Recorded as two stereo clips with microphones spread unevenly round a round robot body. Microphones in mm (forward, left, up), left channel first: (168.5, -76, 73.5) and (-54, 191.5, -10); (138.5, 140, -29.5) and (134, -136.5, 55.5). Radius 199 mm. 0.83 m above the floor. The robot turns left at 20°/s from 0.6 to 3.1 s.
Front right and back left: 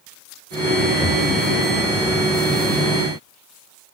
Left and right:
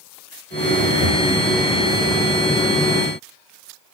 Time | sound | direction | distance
0.9 | breathing | 120° right | 3.5 m